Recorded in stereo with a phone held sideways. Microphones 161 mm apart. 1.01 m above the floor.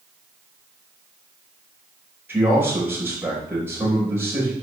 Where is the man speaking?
15° right (ahead or behind), 4 m.